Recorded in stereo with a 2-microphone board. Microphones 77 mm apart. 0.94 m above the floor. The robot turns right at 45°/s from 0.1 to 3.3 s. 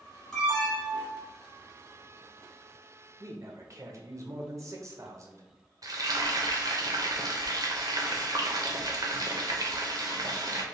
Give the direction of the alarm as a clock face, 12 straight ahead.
6 o'clock.